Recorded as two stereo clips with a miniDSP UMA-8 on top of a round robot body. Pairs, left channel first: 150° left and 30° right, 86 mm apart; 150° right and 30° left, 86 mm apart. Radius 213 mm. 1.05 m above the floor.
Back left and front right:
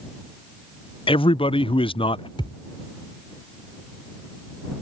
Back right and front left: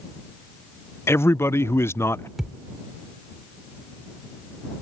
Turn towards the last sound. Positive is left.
turn(degrees=115)